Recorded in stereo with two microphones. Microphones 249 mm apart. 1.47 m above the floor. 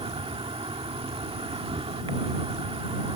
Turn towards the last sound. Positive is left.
turn(degrees=-25)  # may be behind; listen again after turning